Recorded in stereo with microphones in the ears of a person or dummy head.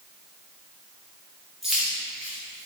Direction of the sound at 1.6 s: Centre (ahead or behind).